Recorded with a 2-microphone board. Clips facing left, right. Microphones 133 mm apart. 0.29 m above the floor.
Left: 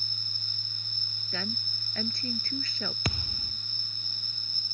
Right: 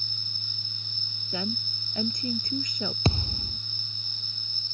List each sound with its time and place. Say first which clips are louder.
0.0 s an insect: right 3 dB; 25° right (ahead or behind)
1.3 s a woman speaking: right 5 dB; 15° right (ahead or behind)
3.0 s a thud: right 8 dB; 30° right (ahead or behind)